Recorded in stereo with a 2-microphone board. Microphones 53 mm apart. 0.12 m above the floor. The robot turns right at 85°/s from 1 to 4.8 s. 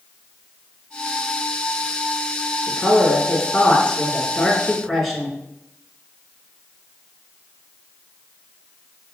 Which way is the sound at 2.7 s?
5° right (ahead or behind).